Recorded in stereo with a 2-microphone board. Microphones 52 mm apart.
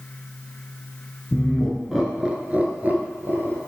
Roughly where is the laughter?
Centre.